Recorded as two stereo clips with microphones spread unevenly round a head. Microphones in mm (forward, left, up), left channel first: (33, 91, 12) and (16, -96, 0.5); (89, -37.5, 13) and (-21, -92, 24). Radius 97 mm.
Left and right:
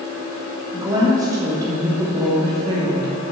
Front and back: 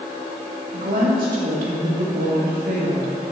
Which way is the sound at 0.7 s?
170° right.